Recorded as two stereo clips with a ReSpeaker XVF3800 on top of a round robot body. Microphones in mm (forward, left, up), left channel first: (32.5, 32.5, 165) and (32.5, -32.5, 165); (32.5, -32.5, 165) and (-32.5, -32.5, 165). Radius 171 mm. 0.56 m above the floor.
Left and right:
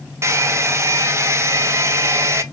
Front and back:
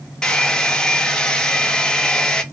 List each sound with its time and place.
0.2 s a hair dryer: 75° right, 0.8 m